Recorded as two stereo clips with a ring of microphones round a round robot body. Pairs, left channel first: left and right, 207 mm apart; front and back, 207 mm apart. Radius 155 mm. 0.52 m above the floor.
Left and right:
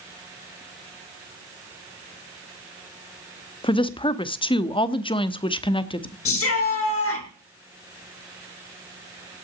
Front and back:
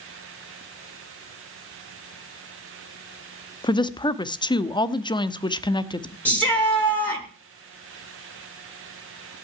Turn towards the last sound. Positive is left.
turn(degrees=80)